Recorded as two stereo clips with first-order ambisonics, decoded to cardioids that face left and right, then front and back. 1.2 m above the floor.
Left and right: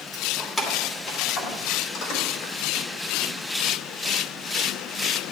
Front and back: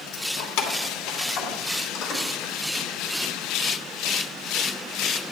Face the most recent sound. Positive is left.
turn(degrees=60)